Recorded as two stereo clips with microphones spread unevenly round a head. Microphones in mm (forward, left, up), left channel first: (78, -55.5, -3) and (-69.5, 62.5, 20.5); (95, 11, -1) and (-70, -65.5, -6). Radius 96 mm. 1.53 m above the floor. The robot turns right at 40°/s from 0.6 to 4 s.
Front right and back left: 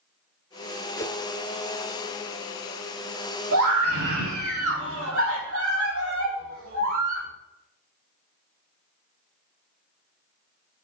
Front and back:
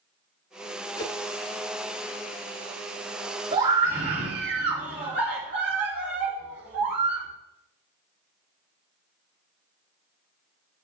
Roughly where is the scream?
Behind left.